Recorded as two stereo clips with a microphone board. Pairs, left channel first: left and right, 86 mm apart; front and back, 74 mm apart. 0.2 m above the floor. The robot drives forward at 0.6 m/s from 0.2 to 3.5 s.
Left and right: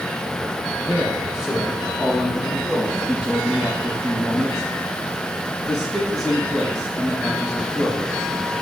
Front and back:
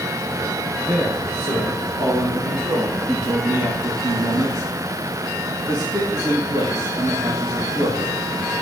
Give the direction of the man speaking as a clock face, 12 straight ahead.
6 o'clock.